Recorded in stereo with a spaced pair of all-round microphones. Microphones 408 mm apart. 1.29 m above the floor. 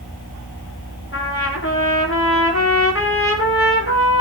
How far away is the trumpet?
About 3.5 m.